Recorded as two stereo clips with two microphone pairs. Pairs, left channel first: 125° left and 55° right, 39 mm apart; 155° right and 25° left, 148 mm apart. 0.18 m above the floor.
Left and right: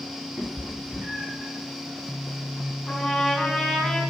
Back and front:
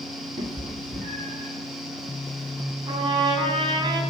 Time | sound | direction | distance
0.4 | a cat meowing | 5° right | 1.8 m
2.9 | a trumpet | 45° left | 1.5 m